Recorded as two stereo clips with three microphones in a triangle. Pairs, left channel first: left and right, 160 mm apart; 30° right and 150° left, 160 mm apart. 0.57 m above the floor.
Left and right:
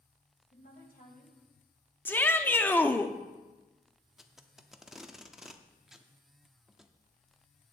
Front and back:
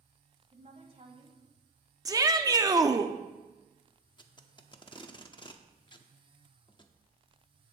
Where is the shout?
145° left, 0.7 m.